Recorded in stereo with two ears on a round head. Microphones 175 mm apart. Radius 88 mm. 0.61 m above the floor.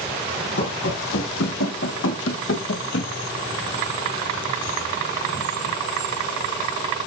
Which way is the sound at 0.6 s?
65° left (ahead or behind).